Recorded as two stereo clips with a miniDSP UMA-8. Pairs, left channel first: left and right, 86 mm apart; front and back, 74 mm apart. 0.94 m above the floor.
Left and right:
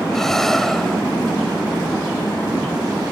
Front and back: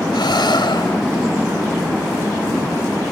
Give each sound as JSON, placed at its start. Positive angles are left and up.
{"t": 0.1, "sound": "breathing", "azimuth_deg": 5}